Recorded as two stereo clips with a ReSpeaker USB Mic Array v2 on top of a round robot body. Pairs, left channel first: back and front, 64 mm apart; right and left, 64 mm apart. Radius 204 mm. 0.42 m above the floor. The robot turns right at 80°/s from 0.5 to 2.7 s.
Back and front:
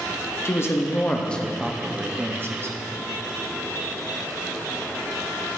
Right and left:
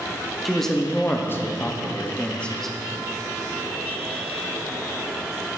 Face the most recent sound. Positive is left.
turn(degrees=-5)